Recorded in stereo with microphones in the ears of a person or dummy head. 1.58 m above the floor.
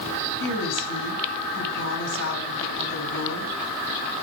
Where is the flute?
I don't hear a flute.